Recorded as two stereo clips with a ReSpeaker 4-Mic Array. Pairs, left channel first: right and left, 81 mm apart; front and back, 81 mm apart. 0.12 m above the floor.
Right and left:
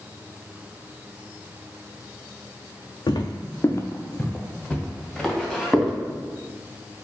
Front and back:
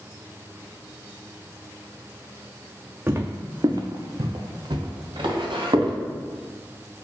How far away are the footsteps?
About 0.5 m.